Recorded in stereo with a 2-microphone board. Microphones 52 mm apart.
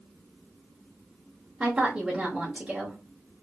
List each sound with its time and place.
1.6 s a woman speaking: 20° right (ahead or behind), 0.8 m